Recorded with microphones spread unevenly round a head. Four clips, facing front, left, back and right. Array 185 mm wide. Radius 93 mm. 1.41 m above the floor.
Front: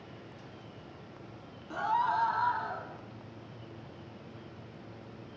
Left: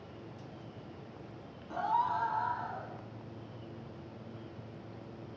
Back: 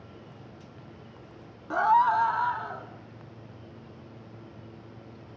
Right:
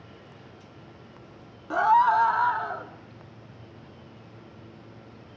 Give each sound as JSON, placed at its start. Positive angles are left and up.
{"t": 1.7, "sound": "a scream", "azimuth_deg": -115, "distance_m": 1.2}